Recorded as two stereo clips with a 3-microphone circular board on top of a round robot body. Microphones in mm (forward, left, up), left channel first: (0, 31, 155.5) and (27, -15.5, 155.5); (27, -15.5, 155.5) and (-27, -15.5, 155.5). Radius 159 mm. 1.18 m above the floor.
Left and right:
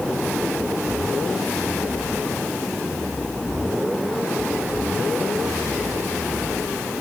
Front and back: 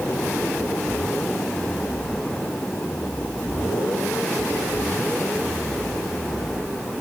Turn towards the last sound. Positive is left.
No sound to turn to.